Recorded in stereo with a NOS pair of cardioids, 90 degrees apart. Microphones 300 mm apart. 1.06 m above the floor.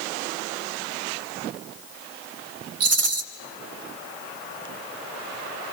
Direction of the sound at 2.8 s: 55° right.